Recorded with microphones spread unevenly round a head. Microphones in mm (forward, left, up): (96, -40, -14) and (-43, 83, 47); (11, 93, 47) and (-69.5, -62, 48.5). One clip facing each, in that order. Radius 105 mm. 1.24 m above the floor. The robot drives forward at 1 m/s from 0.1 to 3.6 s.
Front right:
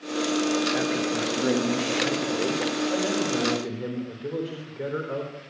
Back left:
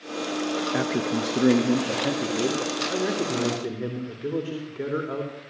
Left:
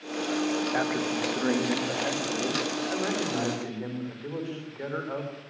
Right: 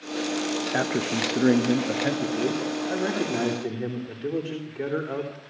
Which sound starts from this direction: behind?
A man speaking, at 0.7 s.